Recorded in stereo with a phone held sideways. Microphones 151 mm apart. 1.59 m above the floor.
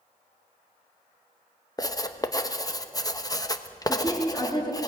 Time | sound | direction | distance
1.8 | writing | 25° left (ahead or behind) | 0.9 m
3.9 | a woman speaking | 25° left (ahead or behind) | 4 m